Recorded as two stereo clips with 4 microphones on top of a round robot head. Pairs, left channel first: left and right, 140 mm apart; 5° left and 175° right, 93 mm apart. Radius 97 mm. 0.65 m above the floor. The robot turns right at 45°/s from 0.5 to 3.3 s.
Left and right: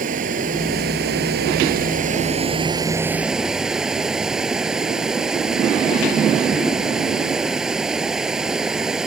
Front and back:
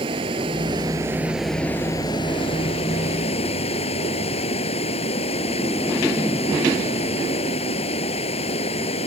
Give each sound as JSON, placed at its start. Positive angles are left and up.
{"t": 0.0, "sound": "running water", "azimuth_deg": -130}